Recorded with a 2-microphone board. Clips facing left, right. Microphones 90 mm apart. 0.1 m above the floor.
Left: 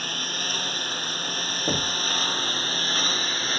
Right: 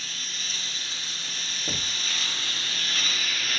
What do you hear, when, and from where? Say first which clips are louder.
0.0 s a lawn mower: left 8 dB; 55° left (ahead or behind); by 3.6 s 35° left (ahead or behind)
1.7 s knocking: left 9 dB; 35° left (ahead or behind)